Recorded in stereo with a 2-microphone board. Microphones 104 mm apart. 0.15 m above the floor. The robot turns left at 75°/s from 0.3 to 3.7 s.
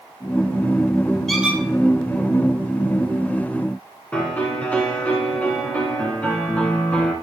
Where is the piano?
15° left (ahead or behind), 1.8 m.